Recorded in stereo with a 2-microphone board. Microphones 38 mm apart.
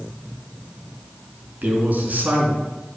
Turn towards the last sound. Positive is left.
turn(degrees=-45)  # may be behind; listen again after turning